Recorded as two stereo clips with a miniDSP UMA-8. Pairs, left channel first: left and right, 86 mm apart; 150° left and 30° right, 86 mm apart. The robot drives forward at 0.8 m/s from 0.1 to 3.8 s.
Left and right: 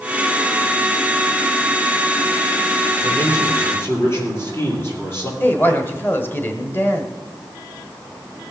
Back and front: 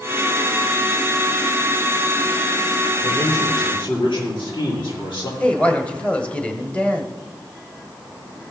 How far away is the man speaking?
About 5.5 m.